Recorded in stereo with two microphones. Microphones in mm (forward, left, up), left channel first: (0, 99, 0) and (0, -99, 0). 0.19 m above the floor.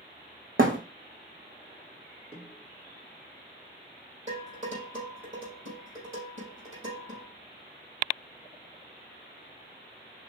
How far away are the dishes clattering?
About 4 m.